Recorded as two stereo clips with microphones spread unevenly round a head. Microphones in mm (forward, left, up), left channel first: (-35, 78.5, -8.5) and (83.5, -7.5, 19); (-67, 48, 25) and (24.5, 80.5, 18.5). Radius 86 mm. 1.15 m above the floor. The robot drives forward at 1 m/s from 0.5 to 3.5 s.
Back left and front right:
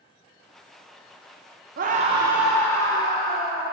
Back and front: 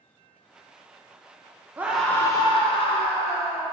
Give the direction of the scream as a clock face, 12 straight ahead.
1 o'clock.